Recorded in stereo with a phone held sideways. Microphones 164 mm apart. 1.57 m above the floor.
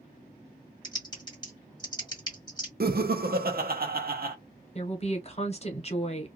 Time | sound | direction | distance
0.8 | typing on a keyboard | 25° left (ahead or behind) | 1.7 m
2.8 | laughter | 65° right (ahead or behind) | 0.6 m
4.8 | a woman speaking | 40° left (ahead or behind) | 1.0 m